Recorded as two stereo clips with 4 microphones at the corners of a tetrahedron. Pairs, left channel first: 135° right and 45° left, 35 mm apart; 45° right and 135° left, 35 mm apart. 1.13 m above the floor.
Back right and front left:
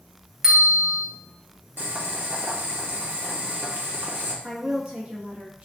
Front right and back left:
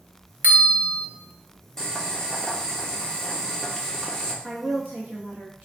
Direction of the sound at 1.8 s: 30° left.